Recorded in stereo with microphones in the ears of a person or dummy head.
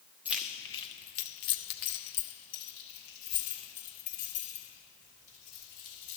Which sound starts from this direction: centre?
Keys jangling, at 0.2 s.